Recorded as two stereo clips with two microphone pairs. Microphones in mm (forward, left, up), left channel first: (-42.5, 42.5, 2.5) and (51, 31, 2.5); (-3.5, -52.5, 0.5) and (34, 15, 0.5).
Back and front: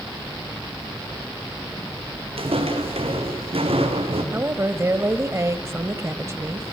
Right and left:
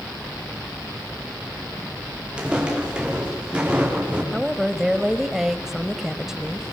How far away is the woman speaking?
About 1.2 m.